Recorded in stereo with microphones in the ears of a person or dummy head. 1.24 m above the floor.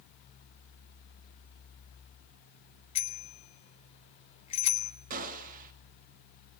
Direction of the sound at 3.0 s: 35° left (ahead or behind).